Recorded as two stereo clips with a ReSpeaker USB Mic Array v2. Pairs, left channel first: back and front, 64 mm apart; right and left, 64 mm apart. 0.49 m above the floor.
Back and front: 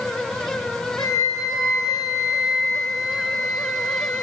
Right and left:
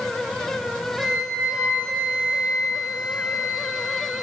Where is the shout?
I don't hear a shout.